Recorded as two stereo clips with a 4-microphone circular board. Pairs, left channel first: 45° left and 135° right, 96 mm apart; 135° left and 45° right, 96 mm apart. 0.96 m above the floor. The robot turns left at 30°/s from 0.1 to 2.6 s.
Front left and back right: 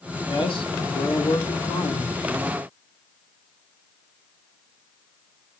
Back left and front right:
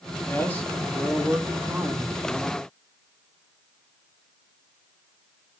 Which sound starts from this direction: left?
A man speaking, at 0.3 s.